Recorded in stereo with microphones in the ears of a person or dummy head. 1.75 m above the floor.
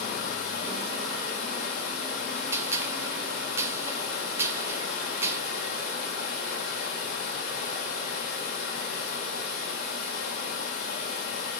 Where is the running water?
45° left (ahead or behind), 2.5 m.